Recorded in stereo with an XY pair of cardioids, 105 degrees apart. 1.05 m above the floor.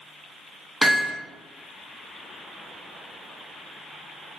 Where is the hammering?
Straight ahead, 0.6 m.